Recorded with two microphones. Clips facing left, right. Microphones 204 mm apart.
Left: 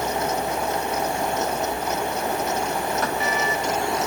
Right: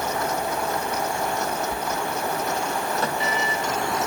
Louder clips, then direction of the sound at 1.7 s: Left 2 dB; 30° right (ahead or behind).